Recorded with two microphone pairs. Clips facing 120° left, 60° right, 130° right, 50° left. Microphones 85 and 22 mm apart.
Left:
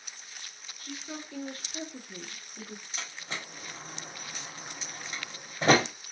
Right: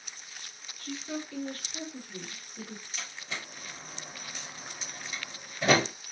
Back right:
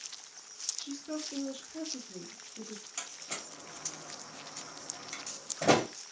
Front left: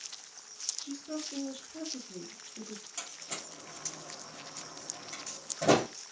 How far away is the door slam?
About 1.2 m.